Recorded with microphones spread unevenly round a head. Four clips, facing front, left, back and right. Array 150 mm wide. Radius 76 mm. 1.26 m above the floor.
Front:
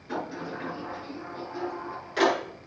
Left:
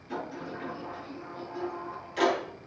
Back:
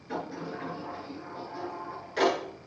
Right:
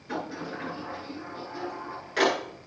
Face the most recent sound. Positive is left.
turn(degrees=-60)